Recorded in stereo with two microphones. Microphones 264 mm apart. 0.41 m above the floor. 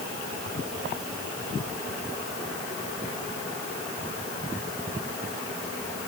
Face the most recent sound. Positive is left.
No sound to turn to.